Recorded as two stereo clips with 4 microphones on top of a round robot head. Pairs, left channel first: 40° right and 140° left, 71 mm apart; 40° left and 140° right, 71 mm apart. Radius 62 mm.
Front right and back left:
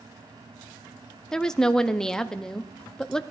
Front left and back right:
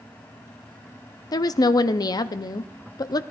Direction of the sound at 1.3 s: 40° left.